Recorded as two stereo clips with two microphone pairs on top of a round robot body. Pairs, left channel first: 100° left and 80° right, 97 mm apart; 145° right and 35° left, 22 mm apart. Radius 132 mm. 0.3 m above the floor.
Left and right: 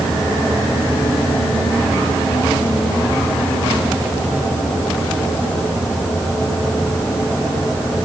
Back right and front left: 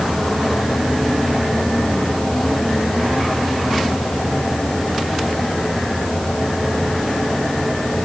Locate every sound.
Only background noise.